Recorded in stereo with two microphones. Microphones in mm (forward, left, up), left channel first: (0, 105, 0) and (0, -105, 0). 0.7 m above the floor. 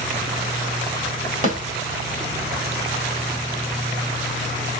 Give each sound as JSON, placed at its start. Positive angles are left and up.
{"t": 1.4, "sound": "a snare drum", "side_deg": 35, "distance_m": 1.8}